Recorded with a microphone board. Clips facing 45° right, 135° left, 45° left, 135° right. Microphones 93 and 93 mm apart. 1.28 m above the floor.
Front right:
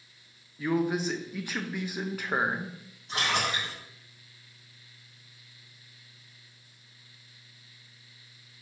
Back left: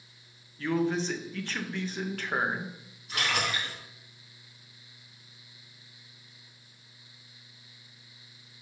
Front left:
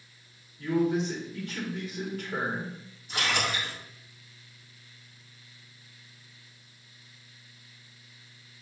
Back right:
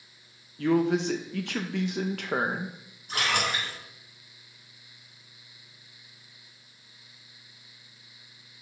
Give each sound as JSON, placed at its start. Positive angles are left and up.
{"t": 0.6, "sound": "a man speaking", "azimuth_deg": -120, "distance_m": 0.9}
{"t": 3.1, "sound": "a splash", "azimuth_deg": -100, "distance_m": 3.5}